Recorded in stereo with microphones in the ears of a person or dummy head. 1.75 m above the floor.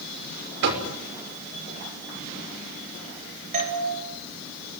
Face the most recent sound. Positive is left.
turn(degrees=-40)  # may be behind; listen again after turning